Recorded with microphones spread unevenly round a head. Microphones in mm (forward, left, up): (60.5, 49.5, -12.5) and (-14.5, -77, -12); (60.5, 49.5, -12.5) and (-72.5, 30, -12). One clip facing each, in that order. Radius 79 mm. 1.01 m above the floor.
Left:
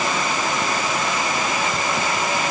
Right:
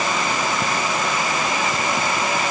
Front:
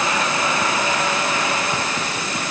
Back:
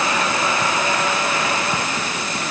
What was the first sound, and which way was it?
Only background noise.